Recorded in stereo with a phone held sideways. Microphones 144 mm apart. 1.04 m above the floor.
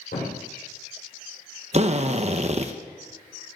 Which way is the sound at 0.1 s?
85° left.